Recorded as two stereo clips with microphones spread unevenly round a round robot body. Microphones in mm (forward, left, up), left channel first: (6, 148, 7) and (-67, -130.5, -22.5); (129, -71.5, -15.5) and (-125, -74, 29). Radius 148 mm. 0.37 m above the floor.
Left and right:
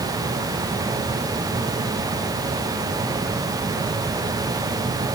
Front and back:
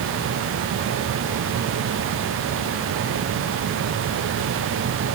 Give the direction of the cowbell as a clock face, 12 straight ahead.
No cowbell in this recording.